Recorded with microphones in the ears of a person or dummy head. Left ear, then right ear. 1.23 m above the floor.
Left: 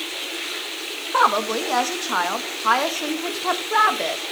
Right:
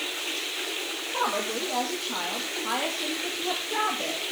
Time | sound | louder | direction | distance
1.1 | a woman speaking | left 10 dB | 50° left (ahead or behind) | 1.7 m